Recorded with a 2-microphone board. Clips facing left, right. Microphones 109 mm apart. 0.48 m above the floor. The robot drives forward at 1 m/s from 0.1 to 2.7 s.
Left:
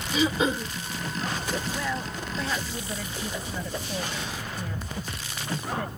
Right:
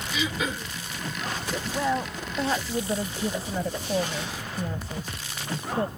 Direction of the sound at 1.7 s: 25° right (ahead or behind).